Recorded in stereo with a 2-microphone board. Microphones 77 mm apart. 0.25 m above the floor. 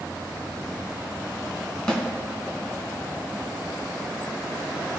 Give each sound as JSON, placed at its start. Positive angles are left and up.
{"t": 1.9, "sound": "a snare drum", "side_deg": 10, "distance_m": 2.0}